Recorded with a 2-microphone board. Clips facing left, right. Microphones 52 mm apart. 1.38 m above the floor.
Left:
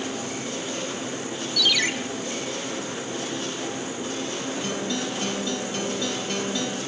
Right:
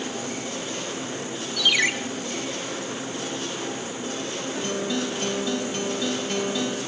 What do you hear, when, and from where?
1.6 s a ringtone: 25° right (ahead or behind), 0.6 m
4.5 s a guitar: 5° right (ahead or behind), 0.7 m